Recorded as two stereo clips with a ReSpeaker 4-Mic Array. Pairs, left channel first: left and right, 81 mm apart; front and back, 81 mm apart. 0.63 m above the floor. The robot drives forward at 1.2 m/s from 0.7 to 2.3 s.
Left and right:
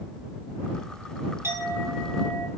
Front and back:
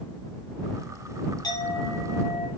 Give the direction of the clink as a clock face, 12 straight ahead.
1 o'clock.